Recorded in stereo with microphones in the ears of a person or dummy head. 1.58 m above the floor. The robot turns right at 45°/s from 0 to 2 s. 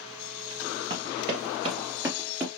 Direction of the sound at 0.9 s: 35° right (ahead or behind).